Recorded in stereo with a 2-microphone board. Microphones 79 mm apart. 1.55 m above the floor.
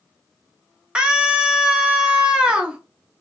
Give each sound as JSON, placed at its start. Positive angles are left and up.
{"t": 0.9, "sound": "a scream", "side_deg": -15, "distance_m": 0.9}